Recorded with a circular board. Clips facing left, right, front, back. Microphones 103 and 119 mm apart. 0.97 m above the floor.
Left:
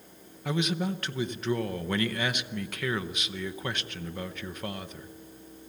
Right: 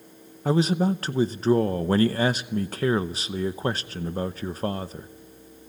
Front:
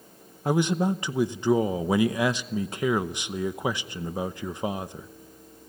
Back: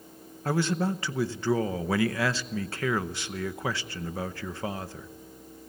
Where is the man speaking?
60° right, 0.7 m.